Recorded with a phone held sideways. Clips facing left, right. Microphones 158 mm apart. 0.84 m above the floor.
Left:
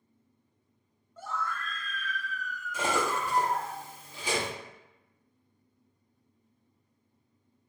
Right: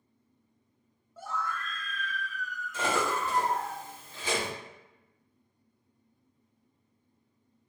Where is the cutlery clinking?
15° left (ahead or behind), 0.8 m.